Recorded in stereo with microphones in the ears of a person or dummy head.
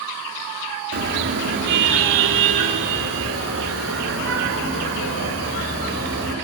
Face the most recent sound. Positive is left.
turn(degrees=-70)  # may be behind; listen again after turning